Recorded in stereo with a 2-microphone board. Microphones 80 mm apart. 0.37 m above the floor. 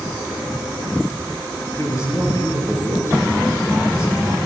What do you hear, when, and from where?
1.8 s a man speaking: 35° left (ahead or behind), 6.5 m